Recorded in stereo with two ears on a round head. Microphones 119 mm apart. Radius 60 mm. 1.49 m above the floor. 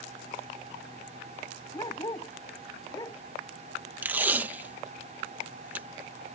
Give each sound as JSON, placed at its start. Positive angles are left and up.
{"t": 1.7, "sound": "a dog barking", "side_deg": 25}
{"t": 4.0, "sound": "tape being pulled", "side_deg": -15}